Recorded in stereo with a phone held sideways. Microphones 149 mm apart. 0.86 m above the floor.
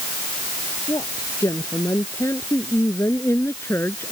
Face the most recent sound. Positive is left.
turn(degrees=15)  # may be behind; listen again after turning